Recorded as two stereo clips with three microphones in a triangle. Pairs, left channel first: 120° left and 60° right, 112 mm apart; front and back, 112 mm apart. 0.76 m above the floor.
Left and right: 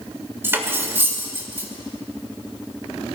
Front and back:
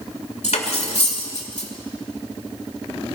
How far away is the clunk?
I don't hear a clunk.